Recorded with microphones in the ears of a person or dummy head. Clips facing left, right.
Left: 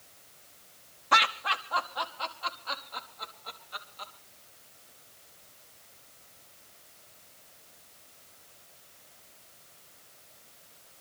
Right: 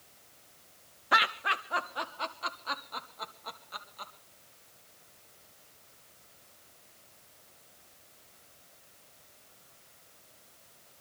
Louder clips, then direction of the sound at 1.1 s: Left 2 dB; 10° right (ahead or behind).